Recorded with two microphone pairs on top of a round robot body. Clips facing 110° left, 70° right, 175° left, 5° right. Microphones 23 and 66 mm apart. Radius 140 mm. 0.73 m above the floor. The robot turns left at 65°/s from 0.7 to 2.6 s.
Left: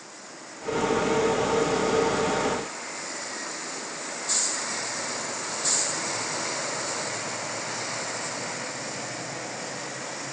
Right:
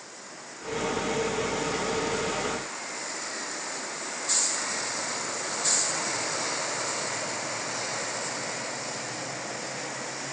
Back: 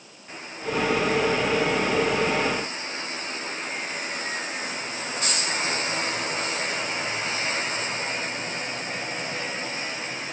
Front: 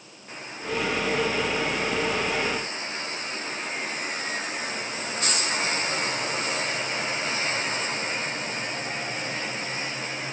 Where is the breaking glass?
No breaking glass in this recording.